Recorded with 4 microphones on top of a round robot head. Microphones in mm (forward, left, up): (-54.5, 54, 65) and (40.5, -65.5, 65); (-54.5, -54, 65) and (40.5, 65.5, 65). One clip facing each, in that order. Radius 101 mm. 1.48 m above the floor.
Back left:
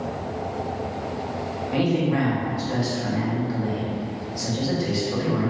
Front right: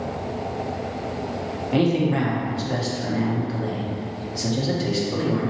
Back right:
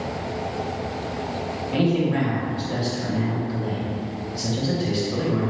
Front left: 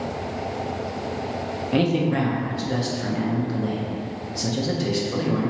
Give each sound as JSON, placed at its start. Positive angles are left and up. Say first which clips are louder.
{"t": 1.7, "sound": "a man speaking", "louder": "front right 2 dB, even", "azimuth_deg": 10, "distance_m": 0.7}